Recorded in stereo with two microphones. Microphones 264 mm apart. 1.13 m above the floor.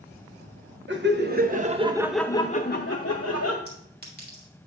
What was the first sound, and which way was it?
Laughter, 45° right (ahead or behind).